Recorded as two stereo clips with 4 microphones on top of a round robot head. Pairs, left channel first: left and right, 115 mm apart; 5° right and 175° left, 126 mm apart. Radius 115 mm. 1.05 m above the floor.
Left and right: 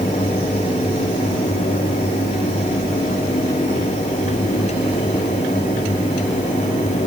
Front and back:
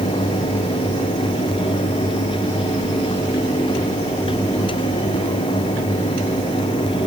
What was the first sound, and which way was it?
Only background noise.